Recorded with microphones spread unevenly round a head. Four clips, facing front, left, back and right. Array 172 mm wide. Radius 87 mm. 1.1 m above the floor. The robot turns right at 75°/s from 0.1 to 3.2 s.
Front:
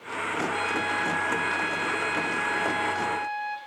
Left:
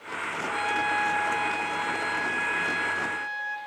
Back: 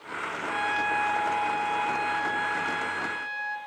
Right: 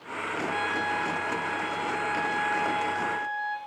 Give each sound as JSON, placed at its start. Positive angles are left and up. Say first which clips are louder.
{"t": 0.5, "sound": "a trumpet", "louder": "left 3 dB, even", "azimuth_deg": -80, "distance_m": 5.0}